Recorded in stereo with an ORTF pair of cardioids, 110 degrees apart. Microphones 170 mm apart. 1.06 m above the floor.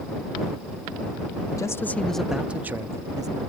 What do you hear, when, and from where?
1.6 s a man speaking: 20° left; by 3.4 s 25° right